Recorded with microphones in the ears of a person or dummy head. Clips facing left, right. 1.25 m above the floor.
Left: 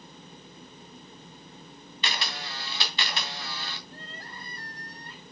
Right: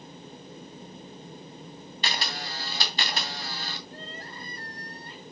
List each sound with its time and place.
2.0 s a camera shutter: 35° right (ahead or behind), 2.5 m
3.9 s crying: 65° right (ahead or behind), 6.5 m